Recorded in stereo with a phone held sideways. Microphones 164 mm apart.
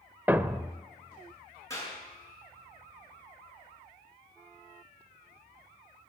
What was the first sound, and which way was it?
A thud, 10° right (ahead or behind).